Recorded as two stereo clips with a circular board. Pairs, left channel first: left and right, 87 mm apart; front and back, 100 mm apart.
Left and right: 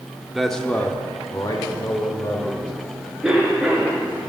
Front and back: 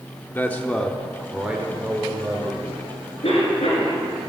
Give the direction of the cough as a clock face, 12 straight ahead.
12 o'clock.